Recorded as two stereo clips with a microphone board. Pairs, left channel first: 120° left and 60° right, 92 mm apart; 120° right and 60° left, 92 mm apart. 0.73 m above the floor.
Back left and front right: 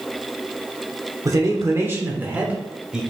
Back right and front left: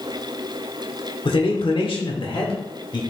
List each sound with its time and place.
1.2 s a man speaking: 110° right, 1.7 m; by 3.0 s 140° right, 2 m